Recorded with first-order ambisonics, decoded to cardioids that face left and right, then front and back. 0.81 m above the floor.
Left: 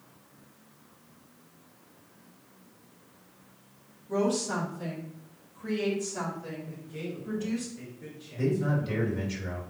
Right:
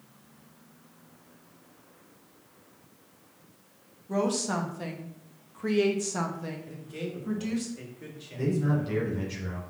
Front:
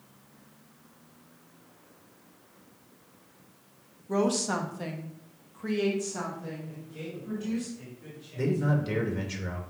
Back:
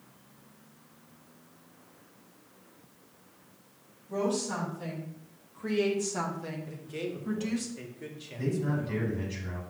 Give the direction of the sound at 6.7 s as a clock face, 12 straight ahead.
5 o'clock.